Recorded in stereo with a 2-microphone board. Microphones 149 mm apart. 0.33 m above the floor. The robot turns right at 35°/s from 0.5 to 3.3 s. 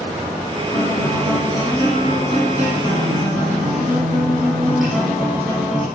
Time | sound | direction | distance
0.7 | a guitar | 90° left | 7 m